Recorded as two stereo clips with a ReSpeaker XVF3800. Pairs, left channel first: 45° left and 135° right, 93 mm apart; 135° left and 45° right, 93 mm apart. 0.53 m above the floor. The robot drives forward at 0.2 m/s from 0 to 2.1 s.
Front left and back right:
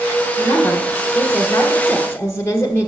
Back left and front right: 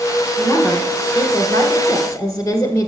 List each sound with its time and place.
0.4 s a woman speaking: 90° left, 1.7 m; by 2.9 s 105° left, 1.7 m